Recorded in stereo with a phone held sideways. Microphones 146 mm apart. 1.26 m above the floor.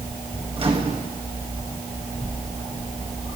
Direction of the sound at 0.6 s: 40° right (ahead or behind).